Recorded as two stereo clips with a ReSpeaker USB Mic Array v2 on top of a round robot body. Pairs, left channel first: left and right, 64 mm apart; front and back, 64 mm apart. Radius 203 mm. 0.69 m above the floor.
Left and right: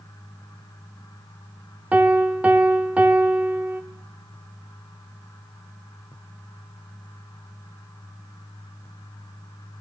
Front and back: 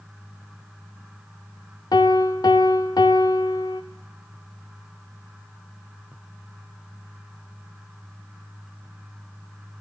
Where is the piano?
20° right, 0.6 m.